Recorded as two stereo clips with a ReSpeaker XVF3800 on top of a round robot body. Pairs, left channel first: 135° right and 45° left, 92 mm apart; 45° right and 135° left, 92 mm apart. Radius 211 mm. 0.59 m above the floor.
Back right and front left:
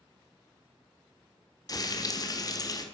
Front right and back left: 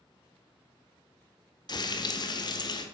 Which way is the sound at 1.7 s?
85° right.